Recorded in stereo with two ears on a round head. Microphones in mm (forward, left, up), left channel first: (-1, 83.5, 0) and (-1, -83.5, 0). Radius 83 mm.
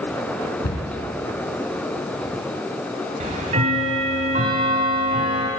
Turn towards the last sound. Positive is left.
turn(degrees=-40)  # may be behind; listen again after turning